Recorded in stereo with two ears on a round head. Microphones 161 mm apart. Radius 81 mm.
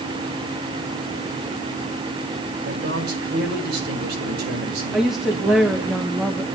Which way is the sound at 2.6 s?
60° right (ahead or behind).